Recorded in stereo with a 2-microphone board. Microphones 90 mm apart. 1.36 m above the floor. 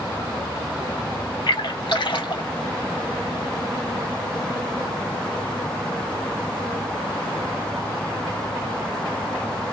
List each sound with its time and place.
1.5 s a splash: 60° left (ahead or behind), 2.5 m